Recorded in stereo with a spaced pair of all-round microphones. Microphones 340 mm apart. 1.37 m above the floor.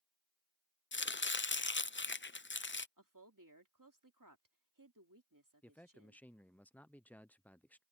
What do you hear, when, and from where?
0.9 s chopping: 35° left (ahead or behind)
3.0 s a woman speaking: 65° right (ahead or behind)
5.6 s a man speaking: 5° left (ahead or behind)